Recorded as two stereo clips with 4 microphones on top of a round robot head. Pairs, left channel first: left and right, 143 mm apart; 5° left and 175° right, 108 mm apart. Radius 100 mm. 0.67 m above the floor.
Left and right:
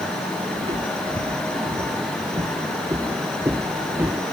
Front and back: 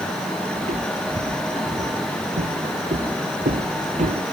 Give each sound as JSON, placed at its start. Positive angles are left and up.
{"t": 0.6, "sound": "footsteps", "azimuth_deg": -150}